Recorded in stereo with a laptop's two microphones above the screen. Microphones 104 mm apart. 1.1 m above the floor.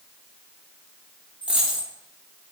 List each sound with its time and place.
1.4 s a dropped coin: 10° right (ahead or behind), 0.7 m